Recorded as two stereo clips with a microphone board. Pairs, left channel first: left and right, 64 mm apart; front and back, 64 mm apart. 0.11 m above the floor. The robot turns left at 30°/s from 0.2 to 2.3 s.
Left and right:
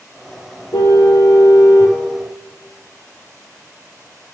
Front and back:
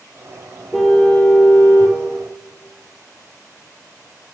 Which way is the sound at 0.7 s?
90° left.